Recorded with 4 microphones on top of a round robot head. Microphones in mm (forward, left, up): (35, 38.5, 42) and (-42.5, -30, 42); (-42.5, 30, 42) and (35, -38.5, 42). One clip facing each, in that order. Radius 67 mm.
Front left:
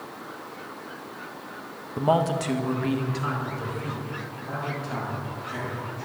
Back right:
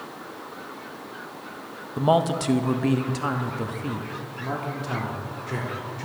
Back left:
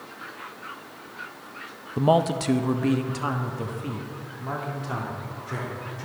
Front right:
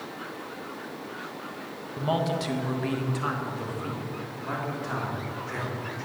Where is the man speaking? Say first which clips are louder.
Back right 2 dB, back left 6 dB; 140° left, 0.7 m; by 6.0 s 150° right, 3 m.